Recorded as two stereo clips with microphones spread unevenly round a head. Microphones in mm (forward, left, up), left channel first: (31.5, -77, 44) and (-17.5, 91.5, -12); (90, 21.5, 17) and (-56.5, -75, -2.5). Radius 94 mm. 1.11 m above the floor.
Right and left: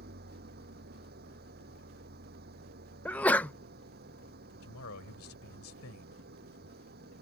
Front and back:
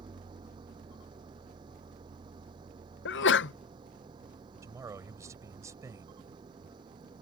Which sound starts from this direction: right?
A man speaking, at 4.6 s.